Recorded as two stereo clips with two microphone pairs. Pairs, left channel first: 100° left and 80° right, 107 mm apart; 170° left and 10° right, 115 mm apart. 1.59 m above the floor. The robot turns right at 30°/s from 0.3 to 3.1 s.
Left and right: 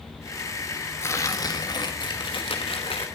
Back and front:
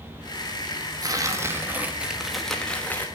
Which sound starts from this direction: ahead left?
Tearing paper, at 1.0 s.